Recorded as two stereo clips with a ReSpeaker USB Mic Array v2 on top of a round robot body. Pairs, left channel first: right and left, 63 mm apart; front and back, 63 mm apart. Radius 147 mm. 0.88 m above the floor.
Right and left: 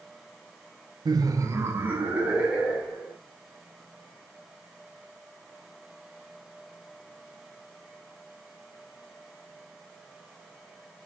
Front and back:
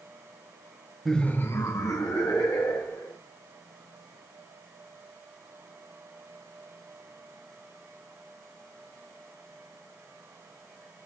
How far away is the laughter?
About 0.5 m.